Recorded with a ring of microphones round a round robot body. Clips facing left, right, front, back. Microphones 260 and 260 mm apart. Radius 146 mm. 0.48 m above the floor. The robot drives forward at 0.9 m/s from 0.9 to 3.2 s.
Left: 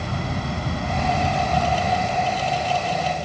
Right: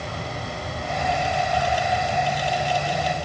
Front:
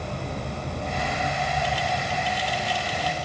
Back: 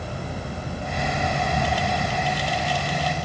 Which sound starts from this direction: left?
An insect, at 0.0 s.